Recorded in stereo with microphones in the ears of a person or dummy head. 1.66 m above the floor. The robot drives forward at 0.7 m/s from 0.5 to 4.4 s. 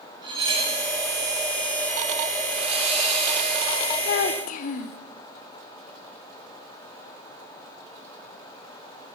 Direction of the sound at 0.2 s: 25° right (ahead or behind).